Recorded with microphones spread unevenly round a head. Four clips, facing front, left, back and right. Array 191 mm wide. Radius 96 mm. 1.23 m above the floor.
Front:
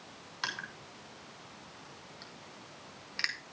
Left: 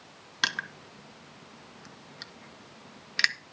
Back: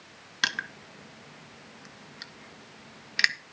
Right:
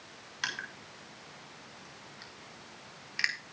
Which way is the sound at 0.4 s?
135° left.